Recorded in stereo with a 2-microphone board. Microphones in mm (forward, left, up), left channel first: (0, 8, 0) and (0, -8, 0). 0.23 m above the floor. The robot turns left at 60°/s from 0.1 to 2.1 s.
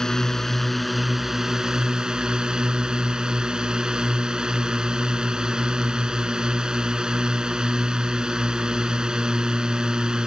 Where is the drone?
45° left; by 10.3 s 75° right.